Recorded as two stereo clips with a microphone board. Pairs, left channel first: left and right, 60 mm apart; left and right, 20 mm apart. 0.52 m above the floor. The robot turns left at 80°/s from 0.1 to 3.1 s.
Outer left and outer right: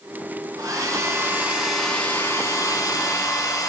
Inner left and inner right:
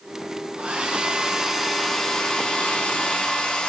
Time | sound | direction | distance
0.6 | a hair dryer | 85° right | 4 m